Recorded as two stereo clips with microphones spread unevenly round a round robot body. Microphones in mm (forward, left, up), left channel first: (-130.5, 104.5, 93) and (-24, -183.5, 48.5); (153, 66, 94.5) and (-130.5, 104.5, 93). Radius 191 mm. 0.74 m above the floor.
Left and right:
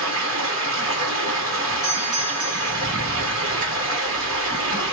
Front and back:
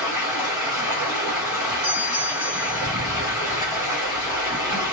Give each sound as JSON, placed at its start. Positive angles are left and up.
{"t": 0.0, "sound": "running water", "azimuth_deg": -110, "distance_m": 1.5}
{"t": 1.8, "sound": "a doorbell", "azimuth_deg": -135, "distance_m": 2.5}
{"t": 3.4, "sound": "running footsteps", "azimuth_deg": 40, "distance_m": 0.7}